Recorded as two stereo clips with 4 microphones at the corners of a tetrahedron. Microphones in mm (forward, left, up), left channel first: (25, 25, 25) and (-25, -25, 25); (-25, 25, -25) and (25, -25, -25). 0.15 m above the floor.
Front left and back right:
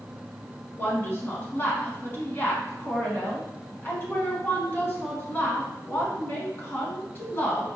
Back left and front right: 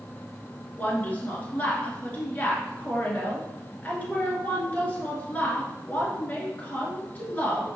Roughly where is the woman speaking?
Left.